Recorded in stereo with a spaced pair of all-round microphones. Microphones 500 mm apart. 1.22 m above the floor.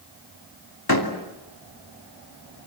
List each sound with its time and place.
0.9 s a door slam: 45° left (ahead or behind), 2.5 m